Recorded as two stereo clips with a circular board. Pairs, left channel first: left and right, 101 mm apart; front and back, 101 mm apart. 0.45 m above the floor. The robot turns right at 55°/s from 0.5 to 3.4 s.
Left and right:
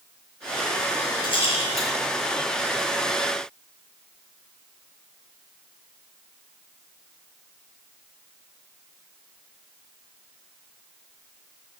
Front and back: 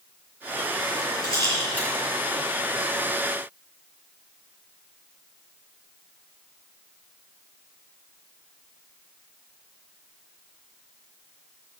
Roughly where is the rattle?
Ahead left.